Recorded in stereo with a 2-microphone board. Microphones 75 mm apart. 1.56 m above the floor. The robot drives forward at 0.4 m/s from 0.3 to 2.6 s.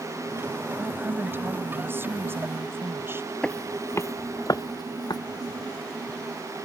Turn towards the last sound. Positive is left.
turn(degrees=65)  # may be behind; listen again after turning